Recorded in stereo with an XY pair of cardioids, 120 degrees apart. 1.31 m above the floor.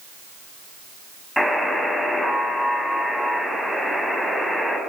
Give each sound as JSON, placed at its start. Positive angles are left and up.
{"t": 1.4, "sound": "a buzzer", "azimuth_deg": 5, "distance_m": 7.5}